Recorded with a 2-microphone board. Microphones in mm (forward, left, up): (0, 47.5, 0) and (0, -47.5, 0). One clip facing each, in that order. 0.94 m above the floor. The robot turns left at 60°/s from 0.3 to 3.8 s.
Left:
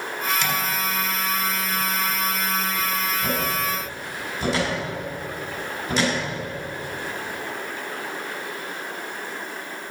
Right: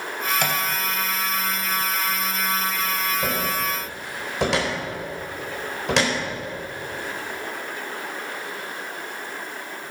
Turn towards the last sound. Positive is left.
turn(degrees=-75)  # may be behind; listen again after turning